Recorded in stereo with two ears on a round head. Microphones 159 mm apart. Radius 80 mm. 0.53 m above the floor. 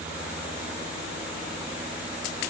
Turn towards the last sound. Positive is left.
No sound to turn to.